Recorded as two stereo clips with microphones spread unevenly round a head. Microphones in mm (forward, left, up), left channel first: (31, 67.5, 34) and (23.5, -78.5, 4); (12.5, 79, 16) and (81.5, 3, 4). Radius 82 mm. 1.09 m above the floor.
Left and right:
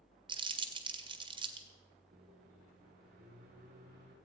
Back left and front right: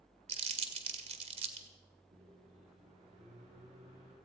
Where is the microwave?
60° right, 8 m.